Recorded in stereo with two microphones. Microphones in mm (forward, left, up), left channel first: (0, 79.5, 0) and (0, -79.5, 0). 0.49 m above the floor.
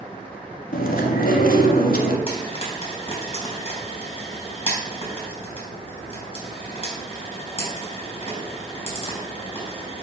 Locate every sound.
0.7 s chewing: 65° left (ahead or behind), 1.3 m
2.3 s frying: 35° left (ahead or behind), 4.5 m